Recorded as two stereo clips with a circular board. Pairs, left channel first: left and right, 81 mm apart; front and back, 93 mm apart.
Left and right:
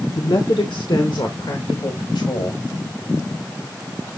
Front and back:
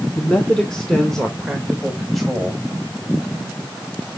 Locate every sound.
0.1 s a man speaking: 75° left, 1.2 m; by 2.6 s 90° left, 2.5 m